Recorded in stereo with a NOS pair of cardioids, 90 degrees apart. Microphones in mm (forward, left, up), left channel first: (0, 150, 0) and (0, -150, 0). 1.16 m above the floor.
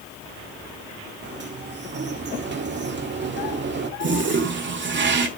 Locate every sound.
1.2 s a sliding door: 35° right, 1.9 m
4.0 s a toilet flushing: 40° right, 2 m